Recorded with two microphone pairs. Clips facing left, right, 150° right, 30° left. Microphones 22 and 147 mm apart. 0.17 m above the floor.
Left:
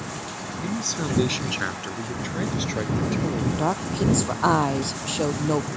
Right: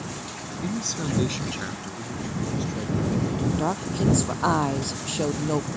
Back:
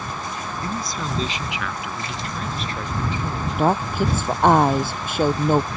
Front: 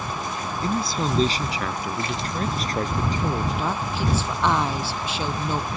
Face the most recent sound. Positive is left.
turn(degrees=175)